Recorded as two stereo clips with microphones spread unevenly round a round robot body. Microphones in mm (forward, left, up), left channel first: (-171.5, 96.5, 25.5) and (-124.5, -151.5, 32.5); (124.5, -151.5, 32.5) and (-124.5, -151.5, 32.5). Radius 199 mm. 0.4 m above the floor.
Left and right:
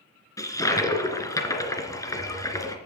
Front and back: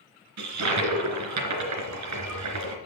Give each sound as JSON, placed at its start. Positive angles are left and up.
{"t": 0.4, "sound": "a toilet flushing", "azimuth_deg": 180, "distance_m": 3.0}